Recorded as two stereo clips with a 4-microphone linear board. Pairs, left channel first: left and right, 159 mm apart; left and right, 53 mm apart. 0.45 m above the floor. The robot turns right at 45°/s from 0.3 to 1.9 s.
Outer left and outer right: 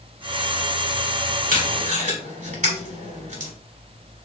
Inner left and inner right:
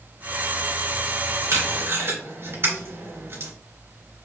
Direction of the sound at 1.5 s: 65° right (ahead or behind).